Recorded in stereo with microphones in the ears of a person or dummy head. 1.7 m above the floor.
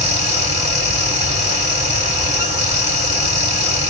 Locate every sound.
0.0 s a fan: 35° right (ahead or behind), 1.6 m